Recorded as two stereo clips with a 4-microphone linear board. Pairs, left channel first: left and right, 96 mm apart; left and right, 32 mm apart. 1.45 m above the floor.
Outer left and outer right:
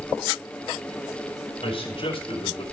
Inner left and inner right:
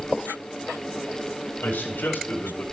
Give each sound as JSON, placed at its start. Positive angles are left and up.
{"t": 1.6, "sound": "a man speaking", "side_deg": 75, "distance_m": 4.5}